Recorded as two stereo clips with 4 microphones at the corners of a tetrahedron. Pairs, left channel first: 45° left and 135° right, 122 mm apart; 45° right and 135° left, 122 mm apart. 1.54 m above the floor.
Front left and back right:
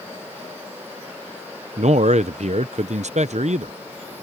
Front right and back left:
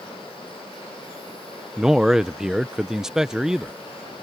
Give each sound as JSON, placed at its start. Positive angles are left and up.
{"t": 1.8, "sound": "a man speaking", "azimuth_deg": -140}